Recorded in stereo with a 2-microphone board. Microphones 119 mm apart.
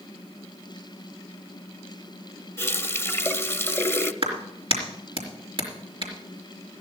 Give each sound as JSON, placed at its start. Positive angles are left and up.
{"t": 2.6, "sound": "a running tap", "side_deg": 20, "distance_m": 0.6}
{"t": 4.2, "sound": "a clap", "side_deg": -50, "distance_m": 3.5}